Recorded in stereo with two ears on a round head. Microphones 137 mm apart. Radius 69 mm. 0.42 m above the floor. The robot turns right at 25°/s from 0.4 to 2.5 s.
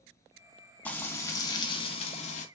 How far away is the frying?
About 1.2 m.